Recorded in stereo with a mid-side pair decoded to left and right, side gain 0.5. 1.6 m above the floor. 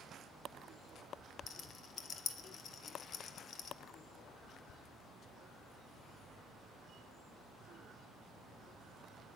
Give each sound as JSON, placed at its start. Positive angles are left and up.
{"t": 1.5, "sound": "a rattle", "azimuth_deg": 50, "distance_m": 1.2}